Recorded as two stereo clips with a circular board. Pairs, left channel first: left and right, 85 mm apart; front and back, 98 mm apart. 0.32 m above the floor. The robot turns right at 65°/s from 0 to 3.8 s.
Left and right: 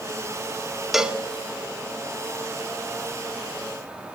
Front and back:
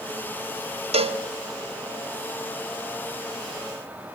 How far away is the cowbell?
About 0.5 m.